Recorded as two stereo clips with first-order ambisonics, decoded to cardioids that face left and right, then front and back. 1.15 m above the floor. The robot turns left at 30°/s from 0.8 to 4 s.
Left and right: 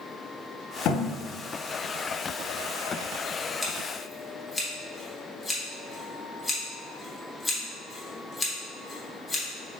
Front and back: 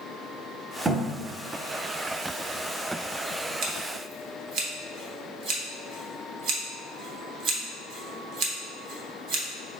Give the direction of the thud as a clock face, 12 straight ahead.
8 o'clock.